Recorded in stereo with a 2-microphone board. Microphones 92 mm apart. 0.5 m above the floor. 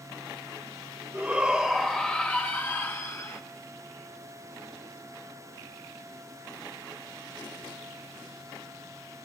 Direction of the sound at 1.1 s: 15° right (ahead or behind).